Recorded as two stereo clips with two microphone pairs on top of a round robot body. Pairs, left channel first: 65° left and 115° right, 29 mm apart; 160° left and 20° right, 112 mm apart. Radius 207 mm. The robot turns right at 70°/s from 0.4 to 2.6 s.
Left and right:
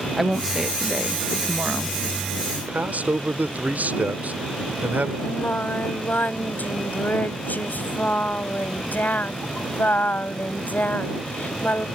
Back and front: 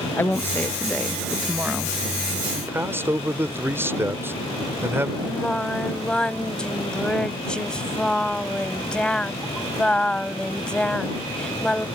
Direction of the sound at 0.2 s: 165° left.